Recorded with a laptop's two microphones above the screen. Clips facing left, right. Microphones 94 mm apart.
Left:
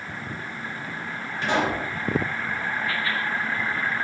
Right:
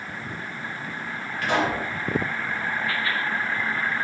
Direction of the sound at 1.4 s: 25° left (ahead or behind).